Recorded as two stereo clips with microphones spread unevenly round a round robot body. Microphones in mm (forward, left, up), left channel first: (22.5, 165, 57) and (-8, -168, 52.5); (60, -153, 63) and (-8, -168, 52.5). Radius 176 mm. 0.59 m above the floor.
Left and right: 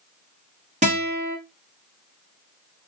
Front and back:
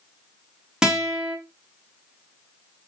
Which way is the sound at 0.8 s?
120° right.